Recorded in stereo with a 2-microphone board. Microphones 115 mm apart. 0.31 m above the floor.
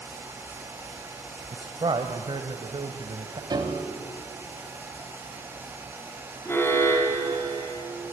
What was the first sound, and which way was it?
A man speaking, 45° right (ahead or behind).